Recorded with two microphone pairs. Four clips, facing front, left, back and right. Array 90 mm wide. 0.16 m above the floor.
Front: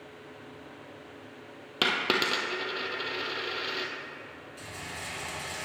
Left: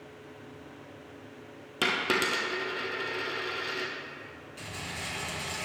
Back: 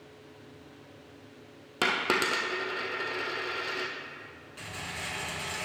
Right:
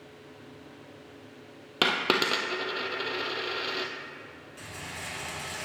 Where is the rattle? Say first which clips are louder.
Left 1 dB, back 2 dB; 170° right, 2.5 m.